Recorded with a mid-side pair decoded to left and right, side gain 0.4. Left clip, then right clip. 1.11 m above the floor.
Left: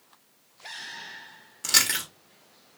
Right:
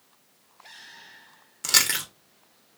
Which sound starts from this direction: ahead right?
Chewing, at 1.6 s.